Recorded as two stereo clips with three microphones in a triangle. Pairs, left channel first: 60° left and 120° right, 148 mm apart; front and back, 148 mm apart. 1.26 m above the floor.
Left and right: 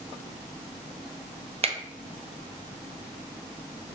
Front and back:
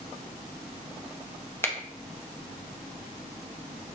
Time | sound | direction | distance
1.6 | a finger snap | 75° right | 0.6 m